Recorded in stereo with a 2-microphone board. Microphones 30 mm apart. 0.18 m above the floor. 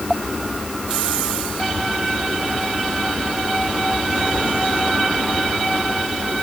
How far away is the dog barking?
I don't hear a dog barking.